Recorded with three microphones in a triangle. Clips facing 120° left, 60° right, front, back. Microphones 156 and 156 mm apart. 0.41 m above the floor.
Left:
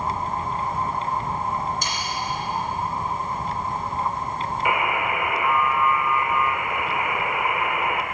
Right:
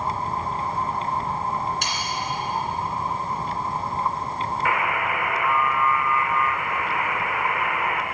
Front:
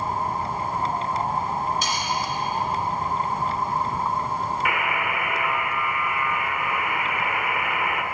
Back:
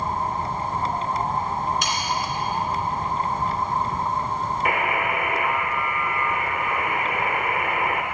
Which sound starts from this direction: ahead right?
Sawing, at 1.8 s.